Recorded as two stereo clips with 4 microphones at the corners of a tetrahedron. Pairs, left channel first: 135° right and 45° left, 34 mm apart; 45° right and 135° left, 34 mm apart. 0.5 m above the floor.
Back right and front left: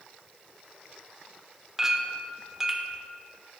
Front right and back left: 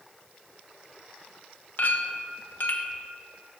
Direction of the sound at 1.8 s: 25° right.